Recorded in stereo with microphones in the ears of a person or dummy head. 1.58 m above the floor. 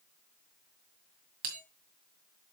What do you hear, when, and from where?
1.4 s a bell: 40° right (ahead or behind), 1.9 m